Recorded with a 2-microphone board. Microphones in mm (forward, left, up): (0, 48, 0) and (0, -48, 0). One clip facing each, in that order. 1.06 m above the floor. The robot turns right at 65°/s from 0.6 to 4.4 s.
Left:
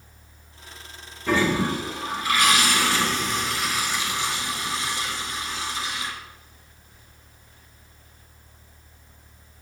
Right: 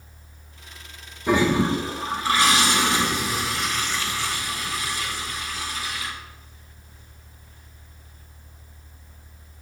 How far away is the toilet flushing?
About 0.6 m.